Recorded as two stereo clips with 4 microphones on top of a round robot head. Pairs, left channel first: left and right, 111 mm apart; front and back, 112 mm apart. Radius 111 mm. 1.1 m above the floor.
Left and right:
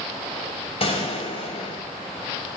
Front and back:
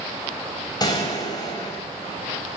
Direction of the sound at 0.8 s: 55° left.